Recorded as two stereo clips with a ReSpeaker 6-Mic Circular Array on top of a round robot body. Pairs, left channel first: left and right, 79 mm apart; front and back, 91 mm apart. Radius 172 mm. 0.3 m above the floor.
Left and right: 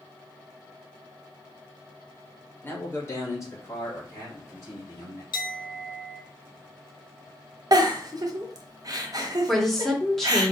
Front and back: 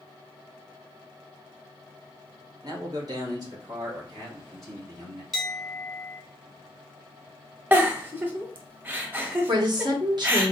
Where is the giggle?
115° right, 0.9 m.